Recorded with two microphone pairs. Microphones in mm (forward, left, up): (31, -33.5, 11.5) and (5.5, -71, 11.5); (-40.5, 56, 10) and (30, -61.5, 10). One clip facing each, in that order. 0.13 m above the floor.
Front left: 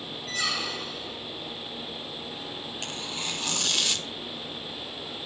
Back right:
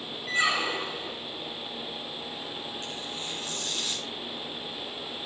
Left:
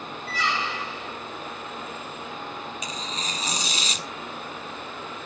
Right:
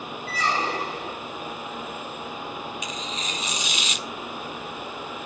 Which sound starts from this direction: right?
A squeak, at 0.3 s.